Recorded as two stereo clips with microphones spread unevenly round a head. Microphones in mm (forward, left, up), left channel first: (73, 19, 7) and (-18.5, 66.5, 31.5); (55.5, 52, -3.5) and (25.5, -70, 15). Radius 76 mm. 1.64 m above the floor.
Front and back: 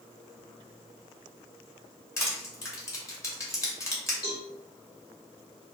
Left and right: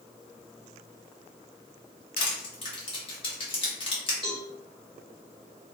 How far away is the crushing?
About 1.3 m.